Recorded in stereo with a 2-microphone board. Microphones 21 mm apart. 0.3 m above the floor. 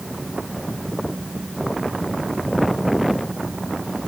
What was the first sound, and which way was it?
Only background noise.